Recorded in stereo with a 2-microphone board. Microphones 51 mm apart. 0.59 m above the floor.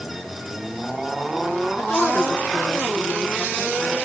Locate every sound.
1.8 s a woman speaking: 40° left (ahead or behind), 6.5 m